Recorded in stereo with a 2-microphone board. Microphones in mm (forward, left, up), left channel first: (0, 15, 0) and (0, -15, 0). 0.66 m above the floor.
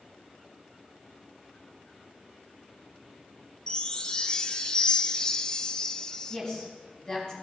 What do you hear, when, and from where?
3.7 s a chime: 30° left (ahead or behind), 0.7 m
6.3 s a woman speaking: 25° left (ahead or behind), 5 m